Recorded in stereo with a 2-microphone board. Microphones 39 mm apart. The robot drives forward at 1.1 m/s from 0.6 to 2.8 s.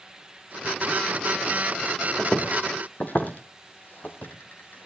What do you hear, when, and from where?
2.2 s footsteps: 25° left (ahead or behind), 3 m; by 4.9 s 55° left (ahead or behind), 3 m